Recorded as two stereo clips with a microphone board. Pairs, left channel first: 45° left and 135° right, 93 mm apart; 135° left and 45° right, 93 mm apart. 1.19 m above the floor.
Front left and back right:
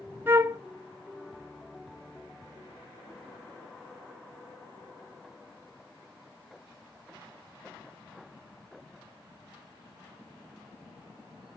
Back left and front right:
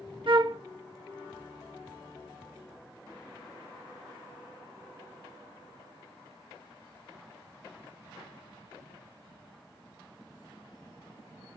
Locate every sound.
0.3 s a flute: 65° right, 0.8 m